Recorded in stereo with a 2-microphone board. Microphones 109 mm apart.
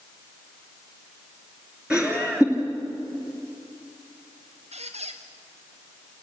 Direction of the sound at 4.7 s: 80° right.